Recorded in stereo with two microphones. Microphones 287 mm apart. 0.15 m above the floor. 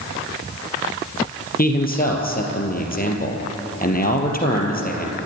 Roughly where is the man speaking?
Left.